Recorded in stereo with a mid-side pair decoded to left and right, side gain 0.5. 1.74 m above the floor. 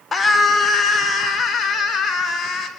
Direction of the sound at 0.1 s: 25° left.